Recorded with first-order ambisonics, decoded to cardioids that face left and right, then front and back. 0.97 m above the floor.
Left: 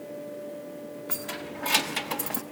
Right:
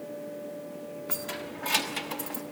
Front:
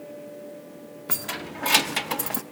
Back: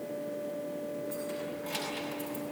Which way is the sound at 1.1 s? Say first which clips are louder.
Left 1 dB, front 3 dB; straight ahead.